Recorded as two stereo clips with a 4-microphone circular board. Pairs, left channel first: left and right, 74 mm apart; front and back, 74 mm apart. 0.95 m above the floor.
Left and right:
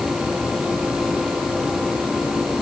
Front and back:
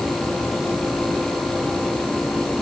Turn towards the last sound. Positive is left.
No sound to turn to.